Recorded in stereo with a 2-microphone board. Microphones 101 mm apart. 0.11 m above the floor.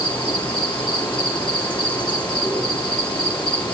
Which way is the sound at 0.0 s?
45° left (ahead or behind).